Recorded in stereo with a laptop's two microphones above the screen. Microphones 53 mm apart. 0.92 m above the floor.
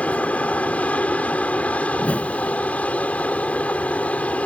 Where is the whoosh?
25° left (ahead or behind).